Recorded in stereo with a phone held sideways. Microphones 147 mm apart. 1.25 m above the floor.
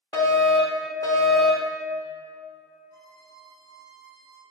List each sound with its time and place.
0.1 s a fire alarm: 25° left (ahead or behind), 1.5 m
2.9 s a violin: 25° left (ahead or behind), 2 m